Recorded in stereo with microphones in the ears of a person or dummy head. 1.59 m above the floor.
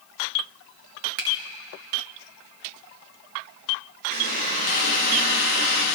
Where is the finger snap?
60° right (ahead or behind), 1.6 m.